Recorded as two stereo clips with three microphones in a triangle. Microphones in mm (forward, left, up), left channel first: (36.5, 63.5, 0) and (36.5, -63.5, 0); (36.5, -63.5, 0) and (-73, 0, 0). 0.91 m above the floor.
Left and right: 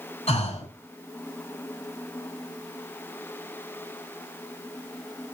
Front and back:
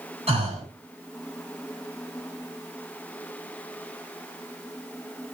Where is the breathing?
120° left, 7 m.